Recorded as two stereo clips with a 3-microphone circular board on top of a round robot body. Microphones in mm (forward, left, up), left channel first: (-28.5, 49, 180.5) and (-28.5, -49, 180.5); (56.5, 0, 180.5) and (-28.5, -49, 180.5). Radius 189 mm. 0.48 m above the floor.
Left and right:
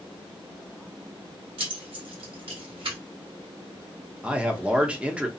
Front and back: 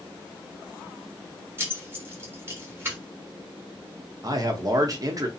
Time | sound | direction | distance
1.6 | keys jangling | 85° right | 1.3 m
4.2 | a man speaking | 160° right | 0.9 m